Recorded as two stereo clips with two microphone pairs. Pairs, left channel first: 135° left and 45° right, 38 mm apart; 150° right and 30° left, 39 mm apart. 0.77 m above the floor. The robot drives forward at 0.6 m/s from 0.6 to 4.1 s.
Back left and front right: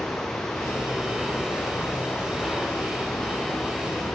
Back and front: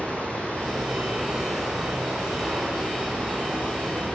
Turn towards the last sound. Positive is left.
turn(degrees=110)